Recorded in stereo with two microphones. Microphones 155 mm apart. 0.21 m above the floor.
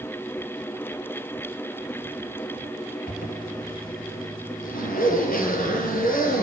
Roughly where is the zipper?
Left.